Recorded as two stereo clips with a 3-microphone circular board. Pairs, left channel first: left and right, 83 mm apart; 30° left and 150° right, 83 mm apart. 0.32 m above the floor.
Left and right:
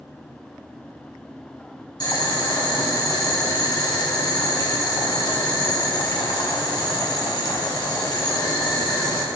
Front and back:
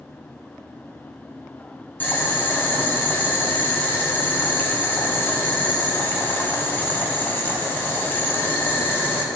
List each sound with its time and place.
2.0 s boiling: 90° left, 1.3 m